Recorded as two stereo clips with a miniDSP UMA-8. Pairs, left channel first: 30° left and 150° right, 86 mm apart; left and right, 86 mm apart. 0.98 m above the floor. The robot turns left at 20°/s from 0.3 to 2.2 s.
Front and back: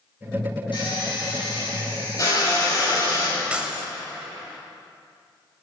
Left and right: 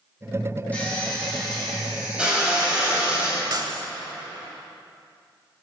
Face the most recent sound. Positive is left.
turn(degrees=-75)